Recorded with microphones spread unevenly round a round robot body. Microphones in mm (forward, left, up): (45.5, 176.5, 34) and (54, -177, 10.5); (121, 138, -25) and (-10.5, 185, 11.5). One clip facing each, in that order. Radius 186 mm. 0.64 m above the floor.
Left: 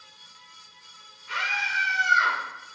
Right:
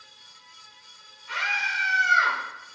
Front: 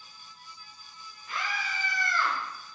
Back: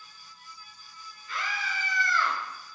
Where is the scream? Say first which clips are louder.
Even, even; 10° left, 4 m; by 2.4 s 25° left, 4.5 m.